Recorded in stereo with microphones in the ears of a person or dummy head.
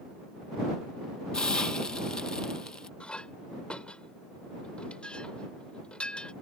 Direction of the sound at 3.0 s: 5° left (ahead or behind).